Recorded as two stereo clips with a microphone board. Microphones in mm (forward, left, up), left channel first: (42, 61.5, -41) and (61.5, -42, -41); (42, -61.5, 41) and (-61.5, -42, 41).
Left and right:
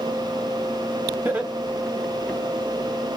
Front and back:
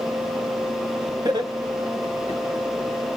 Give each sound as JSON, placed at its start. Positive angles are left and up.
{"t": 1.2, "sound": "laughter", "azimuth_deg": -145, "distance_m": 1.3}